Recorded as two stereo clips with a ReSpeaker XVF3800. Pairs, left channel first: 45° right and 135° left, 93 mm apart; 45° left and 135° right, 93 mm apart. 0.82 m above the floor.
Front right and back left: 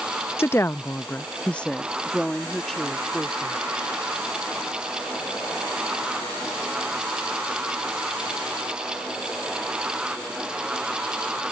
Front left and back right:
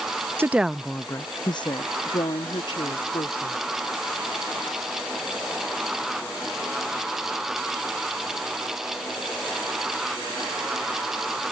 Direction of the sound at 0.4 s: 90° right.